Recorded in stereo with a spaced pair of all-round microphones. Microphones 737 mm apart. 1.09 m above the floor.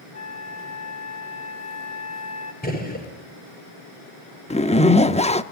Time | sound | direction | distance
0.1 | a flute | 60° left (ahead or behind) | 3 m
2.6 | a gunshot | 10° left (ahead or behind) | 5 m
4.5 | a zipper | 10° left (ahead or behind) | 0.7 m